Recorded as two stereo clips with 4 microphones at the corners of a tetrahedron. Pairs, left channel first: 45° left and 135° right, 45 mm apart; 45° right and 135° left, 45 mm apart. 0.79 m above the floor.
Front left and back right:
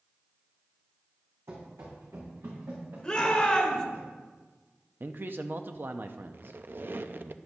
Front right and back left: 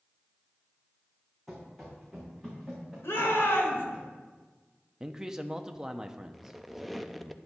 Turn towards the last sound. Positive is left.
turn(degrees=-135)